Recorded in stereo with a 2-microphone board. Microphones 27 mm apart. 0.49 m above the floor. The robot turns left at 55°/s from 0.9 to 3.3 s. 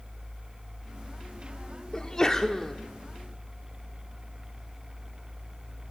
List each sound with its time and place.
1.9 s a sneeze: 25° left (ahead or behind), 1.1 m; by 2.8 s 15° left (ahead or behind), 1.1 m